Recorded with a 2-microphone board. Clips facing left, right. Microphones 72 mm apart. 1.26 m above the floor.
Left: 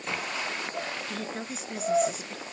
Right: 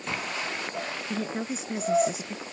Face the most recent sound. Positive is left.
turn(degrees=-10)  # may be behind; listen again after turning